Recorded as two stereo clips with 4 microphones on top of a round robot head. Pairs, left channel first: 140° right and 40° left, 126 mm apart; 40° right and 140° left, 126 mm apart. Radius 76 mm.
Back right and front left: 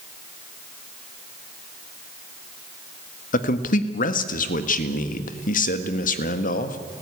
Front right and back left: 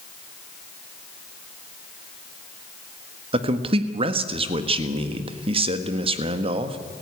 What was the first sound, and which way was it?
A man speaking, 170° right.